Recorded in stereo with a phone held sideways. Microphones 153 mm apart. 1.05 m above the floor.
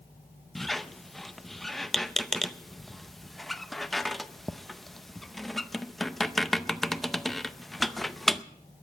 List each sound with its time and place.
0.6 s a squeak: centre (ahead or behind), 0.5 m